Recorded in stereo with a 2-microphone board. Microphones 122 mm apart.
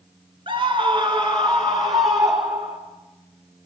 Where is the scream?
45° right (ahead or behind), 1.8 m; by 2.8 s 25° right (ahead or behind), 2.5 m.